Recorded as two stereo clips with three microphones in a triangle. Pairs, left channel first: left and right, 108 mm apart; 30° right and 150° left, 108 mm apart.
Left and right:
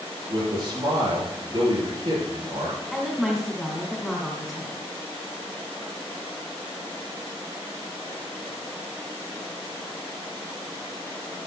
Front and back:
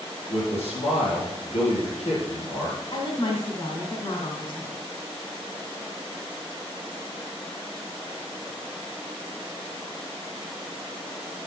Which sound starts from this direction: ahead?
A woman speaking, at 2.9 s.